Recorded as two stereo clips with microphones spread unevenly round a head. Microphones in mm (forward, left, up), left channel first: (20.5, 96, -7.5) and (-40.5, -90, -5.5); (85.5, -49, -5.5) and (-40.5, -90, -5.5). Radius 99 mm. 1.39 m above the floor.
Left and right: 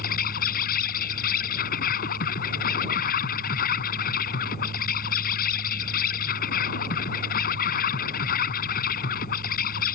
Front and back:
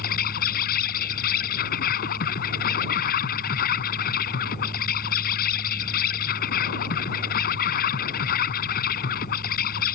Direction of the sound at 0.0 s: 25° left.